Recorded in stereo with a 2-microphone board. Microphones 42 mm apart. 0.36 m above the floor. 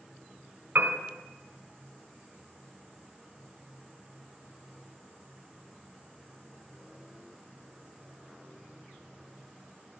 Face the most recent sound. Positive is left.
turn(degrees=-50)  # may be behind; listen again after turning